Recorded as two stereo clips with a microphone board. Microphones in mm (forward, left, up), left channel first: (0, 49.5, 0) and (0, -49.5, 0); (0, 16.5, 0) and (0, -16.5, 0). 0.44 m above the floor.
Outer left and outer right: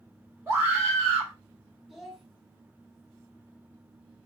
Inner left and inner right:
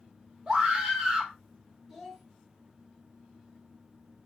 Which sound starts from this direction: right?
A scream, at 0.5 s.